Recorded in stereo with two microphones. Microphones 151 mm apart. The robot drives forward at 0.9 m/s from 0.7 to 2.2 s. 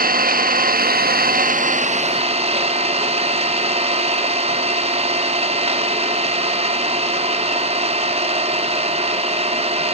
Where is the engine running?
70° right (ahead or behind), 1.0 m; by 10.0 s 40° right (ahead or behind), 1.5 m.